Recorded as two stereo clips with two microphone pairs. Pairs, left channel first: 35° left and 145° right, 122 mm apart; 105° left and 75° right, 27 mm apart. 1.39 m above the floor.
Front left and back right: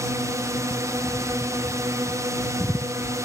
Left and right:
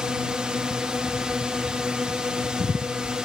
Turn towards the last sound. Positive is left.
turn(degrees=-100)